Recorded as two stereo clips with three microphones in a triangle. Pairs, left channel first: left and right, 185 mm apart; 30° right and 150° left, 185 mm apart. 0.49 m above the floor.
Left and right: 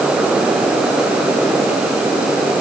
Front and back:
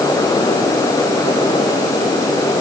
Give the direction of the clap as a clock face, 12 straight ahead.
No clap in this recording.